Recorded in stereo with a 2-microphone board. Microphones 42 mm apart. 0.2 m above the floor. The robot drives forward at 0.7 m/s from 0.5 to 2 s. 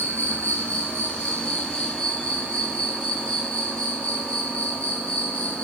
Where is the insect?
45° left (ahead or behind), 0.8 m; by 5.7 s 20° left (ahead or behind), 1.7 m.